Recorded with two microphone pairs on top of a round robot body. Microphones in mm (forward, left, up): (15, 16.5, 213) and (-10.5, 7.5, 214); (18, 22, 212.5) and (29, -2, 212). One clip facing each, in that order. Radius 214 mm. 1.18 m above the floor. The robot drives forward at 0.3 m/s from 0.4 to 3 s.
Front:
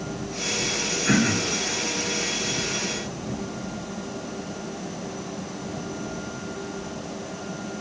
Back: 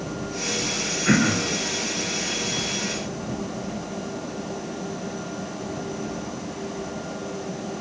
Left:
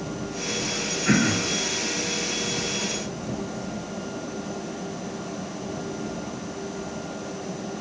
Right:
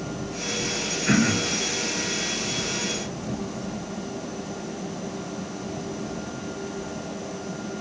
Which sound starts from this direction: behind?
Throat clearing, at 1.1 s.